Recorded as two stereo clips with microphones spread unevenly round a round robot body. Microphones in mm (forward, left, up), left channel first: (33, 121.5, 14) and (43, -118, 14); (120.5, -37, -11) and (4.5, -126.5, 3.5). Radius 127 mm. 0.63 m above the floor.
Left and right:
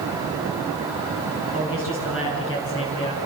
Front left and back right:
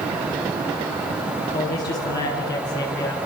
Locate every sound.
1.5 s a man speaking: 60° left, 9 m; by 3.2 s 50° left, 7.5 m